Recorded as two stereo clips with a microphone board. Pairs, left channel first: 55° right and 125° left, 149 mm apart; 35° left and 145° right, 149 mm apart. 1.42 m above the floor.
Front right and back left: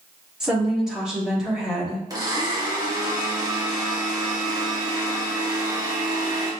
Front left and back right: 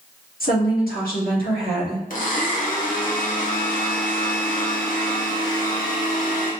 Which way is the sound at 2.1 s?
60° left.